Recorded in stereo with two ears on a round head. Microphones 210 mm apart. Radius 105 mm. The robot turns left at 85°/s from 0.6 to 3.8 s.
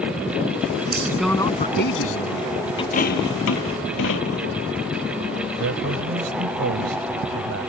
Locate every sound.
0.9 s a man speaking: 150° right; by 2.5 s 70° left
2.8 s a dropped coin: 20° left (ahead or behind); by 4.6 s 60° left (ahead or behind)
5.5 s a man speaking: 60° right (ahead or behind)